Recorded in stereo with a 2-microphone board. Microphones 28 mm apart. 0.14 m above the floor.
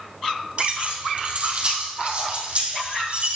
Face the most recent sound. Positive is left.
turn(degrees=-45)  # may be behind; listen again after turning